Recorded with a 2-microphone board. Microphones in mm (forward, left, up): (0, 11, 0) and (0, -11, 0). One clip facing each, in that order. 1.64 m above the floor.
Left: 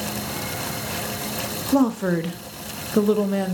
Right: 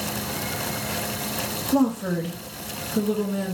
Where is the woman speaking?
40° left (ahead or behind), 0.7 m; by 3.5 s 50° left (ahead or behind), 0.8 m.